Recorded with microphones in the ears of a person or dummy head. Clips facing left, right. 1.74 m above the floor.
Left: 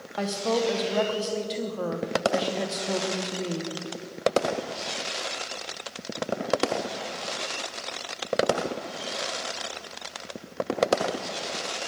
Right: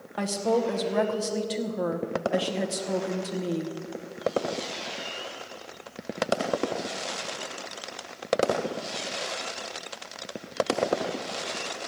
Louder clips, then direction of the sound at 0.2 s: Right 1 dB; 10° right (ahead or behind).